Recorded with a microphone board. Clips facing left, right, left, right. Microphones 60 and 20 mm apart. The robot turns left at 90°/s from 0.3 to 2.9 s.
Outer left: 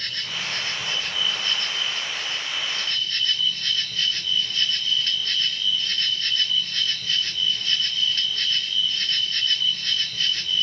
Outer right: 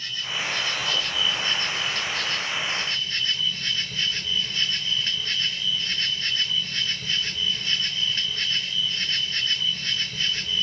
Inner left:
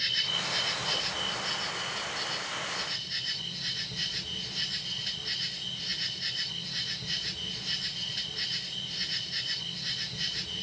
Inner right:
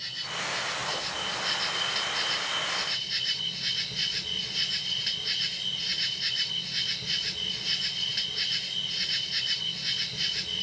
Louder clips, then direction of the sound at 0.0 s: Outer right 1 dB, inner left 4 dB; 70° left.